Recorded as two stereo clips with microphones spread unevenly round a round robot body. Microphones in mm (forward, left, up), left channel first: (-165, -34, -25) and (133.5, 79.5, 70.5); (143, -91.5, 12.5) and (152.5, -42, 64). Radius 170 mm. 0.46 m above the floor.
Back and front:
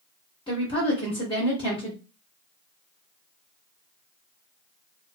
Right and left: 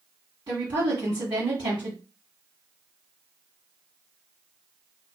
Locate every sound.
0.5 s a woman speaking: 145° left, 1.1 m